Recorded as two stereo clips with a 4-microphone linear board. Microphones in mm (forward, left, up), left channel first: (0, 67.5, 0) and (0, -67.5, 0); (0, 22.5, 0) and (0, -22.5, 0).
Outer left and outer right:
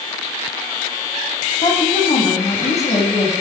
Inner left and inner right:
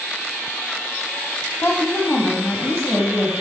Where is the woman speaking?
55° left (ahead or behind), 4 m.